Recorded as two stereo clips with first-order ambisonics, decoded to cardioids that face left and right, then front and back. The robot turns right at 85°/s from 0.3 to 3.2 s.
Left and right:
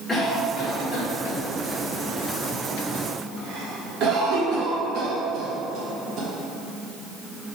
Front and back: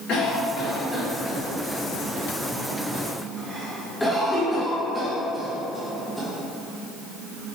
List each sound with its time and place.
0.1 s a cough: 25° left, 1.1 m; by 6.3 s 90° right, 1.1 m